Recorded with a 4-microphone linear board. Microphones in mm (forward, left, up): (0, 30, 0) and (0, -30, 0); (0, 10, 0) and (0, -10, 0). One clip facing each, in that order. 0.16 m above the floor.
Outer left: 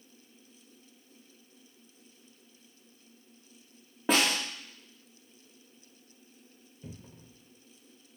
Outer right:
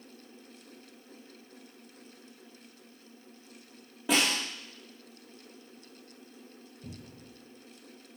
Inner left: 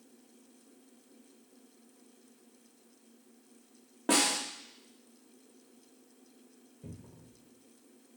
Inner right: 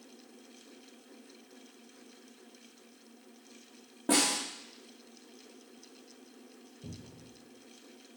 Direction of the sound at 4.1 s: 35° left (ahead or behind).